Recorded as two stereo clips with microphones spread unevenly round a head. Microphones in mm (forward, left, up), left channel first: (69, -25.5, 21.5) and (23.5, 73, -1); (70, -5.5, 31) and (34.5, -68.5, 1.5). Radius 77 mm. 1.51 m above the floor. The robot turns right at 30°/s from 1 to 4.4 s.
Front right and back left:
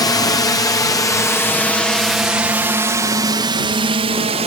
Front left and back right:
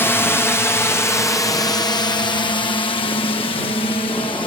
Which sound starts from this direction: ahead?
A drone, at 0.0 s.